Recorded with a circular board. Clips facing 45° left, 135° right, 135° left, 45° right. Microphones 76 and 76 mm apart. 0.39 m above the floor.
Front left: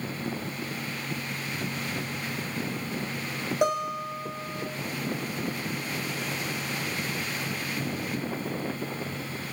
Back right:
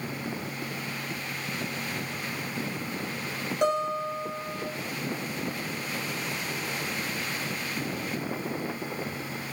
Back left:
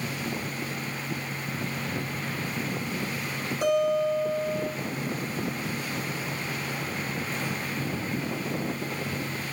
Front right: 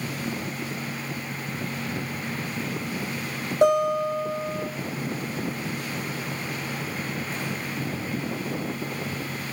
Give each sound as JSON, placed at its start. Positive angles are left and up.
{"t": 3.6, "sound": "a guitar", "azimuth_deg": -35, "distance_m": 2.0}